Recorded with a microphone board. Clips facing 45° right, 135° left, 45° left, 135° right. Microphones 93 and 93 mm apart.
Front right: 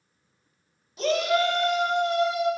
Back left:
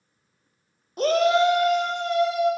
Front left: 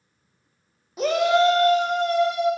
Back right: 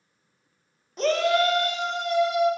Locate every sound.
1.0 s a shout: 125° left, 0.8 m; by 2.5 s 5° left, 1.1 m